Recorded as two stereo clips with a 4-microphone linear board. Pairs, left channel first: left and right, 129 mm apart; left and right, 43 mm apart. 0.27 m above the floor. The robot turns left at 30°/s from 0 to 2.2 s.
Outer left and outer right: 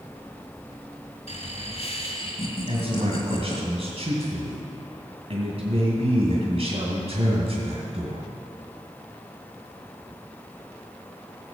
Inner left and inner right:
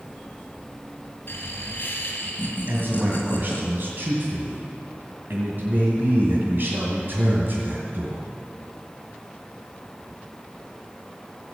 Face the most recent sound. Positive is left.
turn(degrees=-50)  # may be behind; listen again after turning